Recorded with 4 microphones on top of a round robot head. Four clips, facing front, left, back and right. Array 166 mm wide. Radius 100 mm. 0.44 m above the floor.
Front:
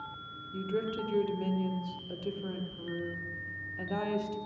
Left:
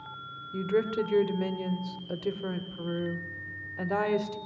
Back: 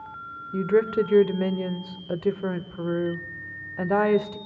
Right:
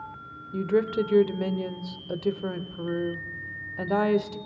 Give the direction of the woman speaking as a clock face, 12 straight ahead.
5 o'clock.